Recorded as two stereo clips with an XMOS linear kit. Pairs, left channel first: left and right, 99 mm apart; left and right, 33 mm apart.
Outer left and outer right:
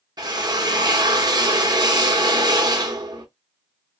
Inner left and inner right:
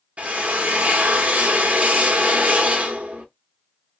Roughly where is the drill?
Right.